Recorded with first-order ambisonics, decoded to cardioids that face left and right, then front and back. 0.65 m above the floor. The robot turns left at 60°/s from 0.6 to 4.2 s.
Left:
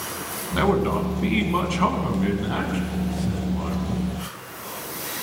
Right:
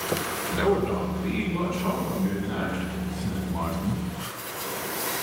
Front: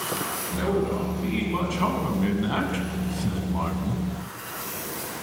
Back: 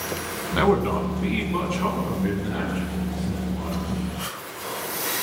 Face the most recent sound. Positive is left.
turn(degrees=-70)